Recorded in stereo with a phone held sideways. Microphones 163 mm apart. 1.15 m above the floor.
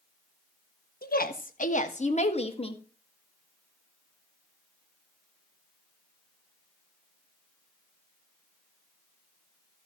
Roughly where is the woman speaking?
Left.